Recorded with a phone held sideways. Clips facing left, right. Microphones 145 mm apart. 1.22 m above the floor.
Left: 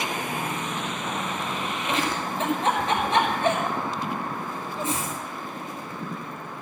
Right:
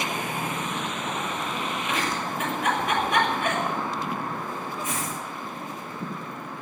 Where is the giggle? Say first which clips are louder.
Left 4 dB; 30° left (ahead or behind), 6 m.